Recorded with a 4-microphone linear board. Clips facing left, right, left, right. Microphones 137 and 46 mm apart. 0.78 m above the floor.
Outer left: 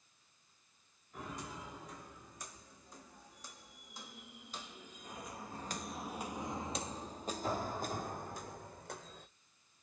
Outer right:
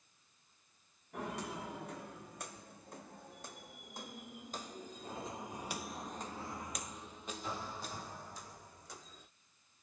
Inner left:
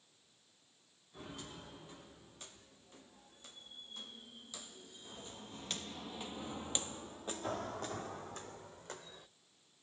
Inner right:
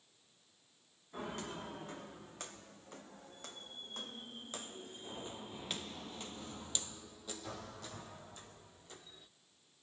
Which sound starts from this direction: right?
Footsteps, at 1.1 s.